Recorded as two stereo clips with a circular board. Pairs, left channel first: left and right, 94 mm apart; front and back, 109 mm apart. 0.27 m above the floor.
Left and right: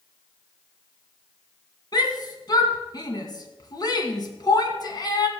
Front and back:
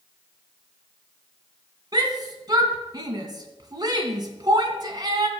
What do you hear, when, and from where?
1.9 s a shout: 130° left, 2 m